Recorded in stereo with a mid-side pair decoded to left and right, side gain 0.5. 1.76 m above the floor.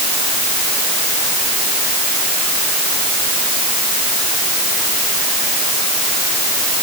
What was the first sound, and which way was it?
Only background noise.